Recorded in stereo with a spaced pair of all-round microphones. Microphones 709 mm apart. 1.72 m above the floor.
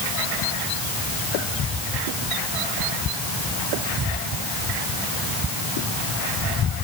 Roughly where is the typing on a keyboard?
I don't hear typing on a keyboard.